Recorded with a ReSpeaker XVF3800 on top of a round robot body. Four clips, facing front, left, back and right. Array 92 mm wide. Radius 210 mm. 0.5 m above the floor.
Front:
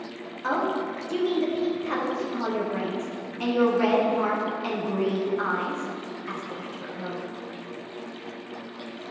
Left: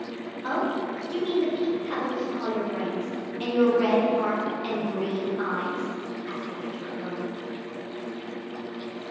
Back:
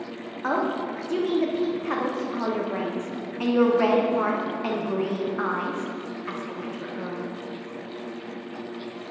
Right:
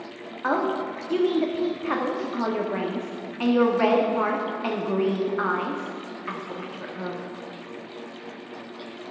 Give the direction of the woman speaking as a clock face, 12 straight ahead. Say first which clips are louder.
Right 3 dB, even; 4 o'clock.